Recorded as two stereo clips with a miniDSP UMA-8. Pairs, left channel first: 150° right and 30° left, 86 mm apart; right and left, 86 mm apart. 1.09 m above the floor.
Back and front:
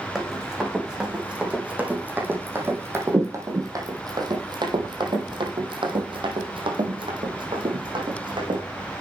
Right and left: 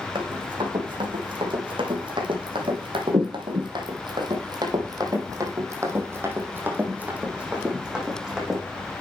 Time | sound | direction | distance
0.1 | running footsteps | 115° left | 4.5 m